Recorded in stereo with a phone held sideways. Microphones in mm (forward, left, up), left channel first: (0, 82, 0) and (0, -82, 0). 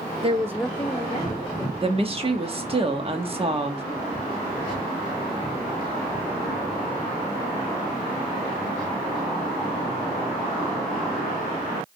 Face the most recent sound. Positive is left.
turn(degrees=-35)  # may be behind; listen again after turning